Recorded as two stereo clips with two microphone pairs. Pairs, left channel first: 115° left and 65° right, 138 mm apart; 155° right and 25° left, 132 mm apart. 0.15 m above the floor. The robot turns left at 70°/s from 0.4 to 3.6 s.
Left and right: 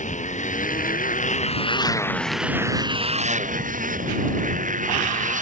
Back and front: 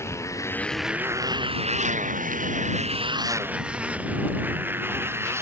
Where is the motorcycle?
140° left; by 5.4 s 45° right.